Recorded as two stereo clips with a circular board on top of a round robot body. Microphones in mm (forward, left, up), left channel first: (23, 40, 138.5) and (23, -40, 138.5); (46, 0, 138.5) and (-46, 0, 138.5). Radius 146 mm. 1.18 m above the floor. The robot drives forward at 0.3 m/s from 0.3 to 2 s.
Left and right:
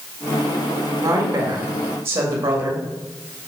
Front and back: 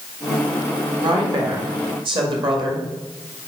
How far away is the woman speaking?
About 1.7 m.